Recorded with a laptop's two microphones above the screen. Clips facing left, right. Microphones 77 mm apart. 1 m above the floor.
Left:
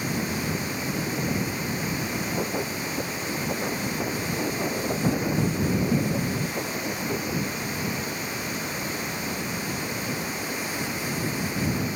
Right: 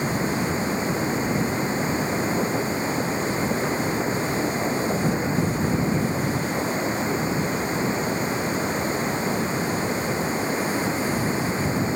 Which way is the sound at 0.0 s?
30° right (ahead or behind).